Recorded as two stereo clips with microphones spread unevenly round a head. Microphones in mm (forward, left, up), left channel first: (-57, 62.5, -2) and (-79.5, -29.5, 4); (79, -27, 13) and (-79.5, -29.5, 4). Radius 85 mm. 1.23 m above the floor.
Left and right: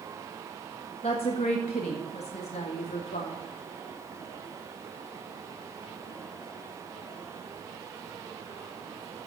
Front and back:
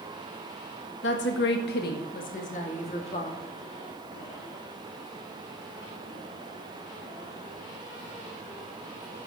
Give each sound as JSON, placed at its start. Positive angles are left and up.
{"t": 1.0, "sound": "a woman speaking", "azimuth_deg": 20, "distance_m": 1.6}